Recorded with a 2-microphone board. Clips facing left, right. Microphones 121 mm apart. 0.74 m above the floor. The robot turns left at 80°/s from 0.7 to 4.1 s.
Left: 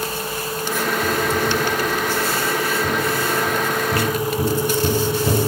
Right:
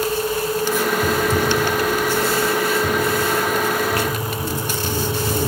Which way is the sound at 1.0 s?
35° right (ahead or behind).